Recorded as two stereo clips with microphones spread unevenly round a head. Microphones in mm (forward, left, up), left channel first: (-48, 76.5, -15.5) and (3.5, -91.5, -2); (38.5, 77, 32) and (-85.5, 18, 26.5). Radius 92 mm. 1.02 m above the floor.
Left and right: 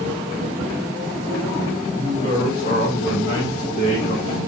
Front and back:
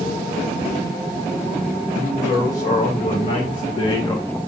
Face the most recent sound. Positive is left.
turn(degrees=105)